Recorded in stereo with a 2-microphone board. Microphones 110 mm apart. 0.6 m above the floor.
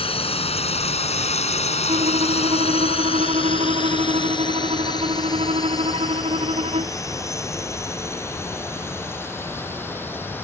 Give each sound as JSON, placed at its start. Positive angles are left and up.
{"t": 0.0, "sound": "a drone", "side_deg": 60}
{"t": 1.9, "sound": "a violin", "side_deg": -75}